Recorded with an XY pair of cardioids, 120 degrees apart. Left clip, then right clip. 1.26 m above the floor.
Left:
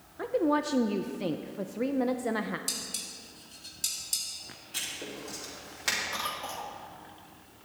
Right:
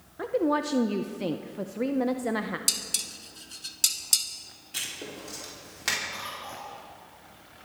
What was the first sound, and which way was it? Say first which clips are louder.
A woman speaking: right 1 dB; 10° right.